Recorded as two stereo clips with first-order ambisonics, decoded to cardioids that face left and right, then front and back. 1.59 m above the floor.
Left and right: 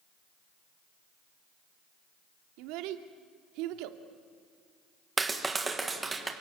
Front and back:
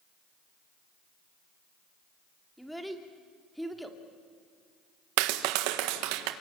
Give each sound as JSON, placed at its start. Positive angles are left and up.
{"t": 2.6, "sound": "a child speaking", "azimuth_deg": -90, "distance_m": 2.0}
{"t": 5.2, "sound": "a clap", "azimuth_deg": -170, "distance_m": 1.6}